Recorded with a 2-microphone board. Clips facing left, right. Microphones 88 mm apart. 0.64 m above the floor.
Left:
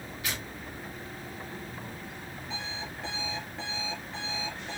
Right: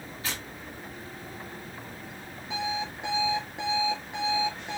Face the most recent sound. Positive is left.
turn(degrees=-15)  # may be behind; listen again after turning